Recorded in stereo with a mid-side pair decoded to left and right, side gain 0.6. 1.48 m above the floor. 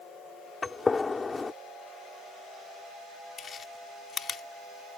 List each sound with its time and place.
0.6 s a gunshot: 25° left
3.4 s chewing: 40° left